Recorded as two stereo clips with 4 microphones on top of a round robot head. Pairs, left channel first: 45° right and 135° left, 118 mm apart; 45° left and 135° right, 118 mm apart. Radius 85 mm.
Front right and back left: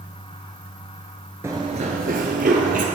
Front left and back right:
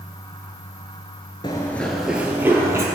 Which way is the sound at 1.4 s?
75° left.